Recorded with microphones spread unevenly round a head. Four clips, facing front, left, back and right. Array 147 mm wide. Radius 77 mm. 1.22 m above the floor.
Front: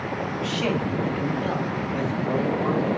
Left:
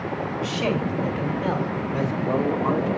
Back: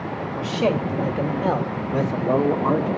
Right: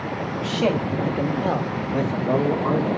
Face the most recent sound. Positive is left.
turn(degrees=-160)